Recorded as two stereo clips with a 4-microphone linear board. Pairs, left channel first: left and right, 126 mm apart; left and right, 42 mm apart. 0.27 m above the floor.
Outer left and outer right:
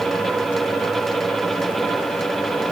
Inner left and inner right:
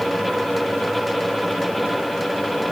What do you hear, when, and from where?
Only background noise.